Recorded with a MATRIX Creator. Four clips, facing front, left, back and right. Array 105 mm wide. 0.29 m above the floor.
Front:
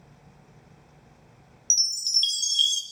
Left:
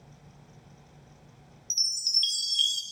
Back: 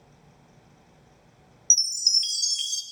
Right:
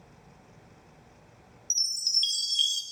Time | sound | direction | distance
1.7 | a chime | straight behind | 0.7 m